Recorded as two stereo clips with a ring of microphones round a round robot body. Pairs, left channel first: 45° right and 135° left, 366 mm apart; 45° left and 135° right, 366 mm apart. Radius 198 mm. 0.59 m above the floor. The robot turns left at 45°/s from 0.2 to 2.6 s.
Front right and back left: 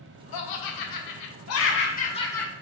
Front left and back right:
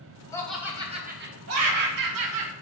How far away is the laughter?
About 1.2 m.